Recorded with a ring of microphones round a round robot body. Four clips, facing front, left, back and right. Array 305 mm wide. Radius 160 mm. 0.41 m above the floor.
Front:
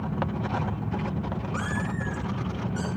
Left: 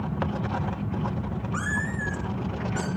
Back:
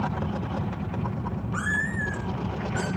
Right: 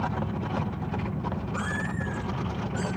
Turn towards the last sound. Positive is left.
turn(degrees=105)